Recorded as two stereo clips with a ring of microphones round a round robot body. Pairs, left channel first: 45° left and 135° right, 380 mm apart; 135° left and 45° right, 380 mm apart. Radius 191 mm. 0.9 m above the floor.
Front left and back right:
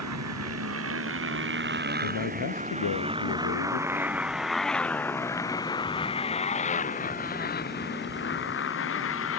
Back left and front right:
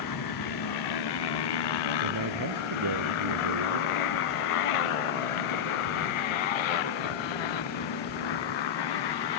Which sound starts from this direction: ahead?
A man speaking, at 2.0 s.